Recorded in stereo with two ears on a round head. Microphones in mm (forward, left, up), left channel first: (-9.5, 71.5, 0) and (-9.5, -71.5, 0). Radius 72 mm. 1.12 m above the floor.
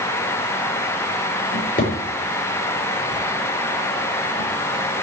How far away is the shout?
No shout in this recording.